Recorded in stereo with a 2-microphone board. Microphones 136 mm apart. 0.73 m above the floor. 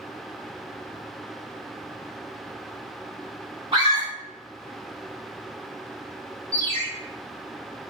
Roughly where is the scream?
Right.